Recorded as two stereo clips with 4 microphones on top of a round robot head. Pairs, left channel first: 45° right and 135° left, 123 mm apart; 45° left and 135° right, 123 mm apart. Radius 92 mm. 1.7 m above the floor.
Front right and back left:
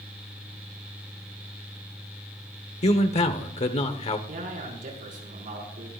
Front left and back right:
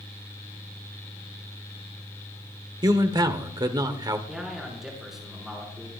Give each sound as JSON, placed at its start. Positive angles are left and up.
{"t": 2.8, "sound": "a man speaking", "azimuth_deg": -80, "distance_m": 1.5}
{"t": 4.3, "sound": "a man speaking", "azimuth_deg": 135, "distance_m": 6.0}